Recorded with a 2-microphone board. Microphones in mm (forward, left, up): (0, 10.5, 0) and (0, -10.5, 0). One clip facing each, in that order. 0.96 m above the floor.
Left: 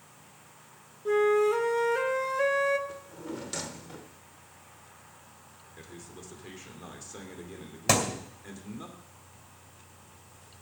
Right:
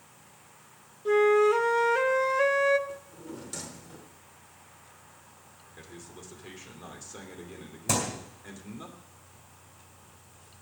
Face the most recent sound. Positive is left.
turn(degrees=50)  # may be behind; listen again after turning